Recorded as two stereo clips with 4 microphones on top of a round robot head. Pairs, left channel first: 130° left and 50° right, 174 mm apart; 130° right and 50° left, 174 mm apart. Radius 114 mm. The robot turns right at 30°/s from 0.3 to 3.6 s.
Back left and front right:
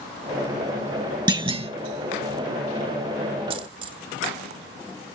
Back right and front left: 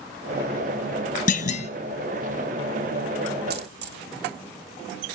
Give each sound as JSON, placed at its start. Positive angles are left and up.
{"t": 1.3, "sound": "a clunk", "azimuth_deg": -105, "distance_m": 1.0}
{"t": 3.5, "sound": "a dropped coin", "azimuth_deg": 15, "distance_m": 1.4}